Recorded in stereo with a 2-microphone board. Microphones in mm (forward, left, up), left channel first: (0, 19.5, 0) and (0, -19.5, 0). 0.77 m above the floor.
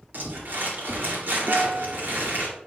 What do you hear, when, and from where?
0.1 s crumpling: 65° right (ahead or behind), 2.5 m
1.5 s a guitar: 65° right (ahead or behind), 1.1 m